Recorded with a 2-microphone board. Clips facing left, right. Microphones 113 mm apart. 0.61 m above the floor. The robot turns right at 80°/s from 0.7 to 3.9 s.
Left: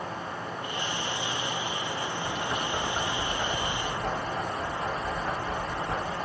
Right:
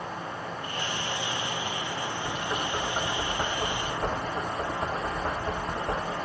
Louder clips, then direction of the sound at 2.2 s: Even; 25° left (ahead or behind).